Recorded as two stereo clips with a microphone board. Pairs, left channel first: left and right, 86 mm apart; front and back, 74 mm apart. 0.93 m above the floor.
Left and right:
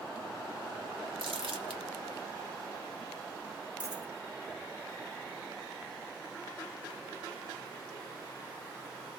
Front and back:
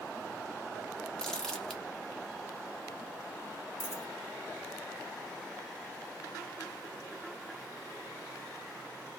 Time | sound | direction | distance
1.2 | crumpling | 80° right | 0.9 m
3.8 | a dropped coin | 20° right | 1.7 m